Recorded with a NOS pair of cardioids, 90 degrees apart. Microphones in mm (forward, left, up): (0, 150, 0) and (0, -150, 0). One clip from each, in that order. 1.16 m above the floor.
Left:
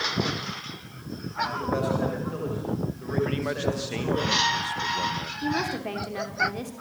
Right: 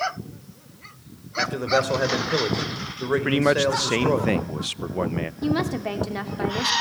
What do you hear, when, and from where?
1.4 s a man speaking: 70° right, 4 m
3.2 s a man speaking: 50° right, 0.8 m
5.4 s a woman speaking: 25° right, 3 m